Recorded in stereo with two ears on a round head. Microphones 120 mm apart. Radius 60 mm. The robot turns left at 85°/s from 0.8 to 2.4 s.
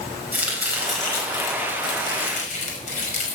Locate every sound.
0.3 s chopping: 10° right (ahead or behind), 5.5 m; by 3.4 s 55° left (ahead or behind), 5.5 m